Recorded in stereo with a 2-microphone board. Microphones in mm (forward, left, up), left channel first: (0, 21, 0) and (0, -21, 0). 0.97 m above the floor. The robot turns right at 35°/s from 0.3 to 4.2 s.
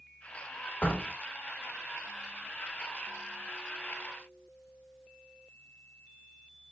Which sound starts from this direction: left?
A door slam, at 0.8 s.